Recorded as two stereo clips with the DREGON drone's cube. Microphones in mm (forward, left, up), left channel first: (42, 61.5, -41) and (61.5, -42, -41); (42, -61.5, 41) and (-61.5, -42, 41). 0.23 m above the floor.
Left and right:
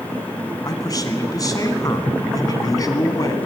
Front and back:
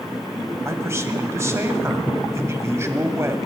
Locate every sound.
0.7 s a man speaking: 120° left, 1.3 m